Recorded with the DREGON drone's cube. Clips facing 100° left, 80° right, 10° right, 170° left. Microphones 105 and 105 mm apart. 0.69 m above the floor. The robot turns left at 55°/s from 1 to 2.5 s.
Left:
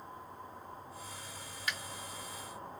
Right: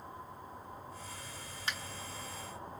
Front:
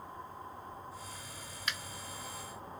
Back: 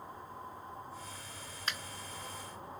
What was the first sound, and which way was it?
A finger snap, 135° right.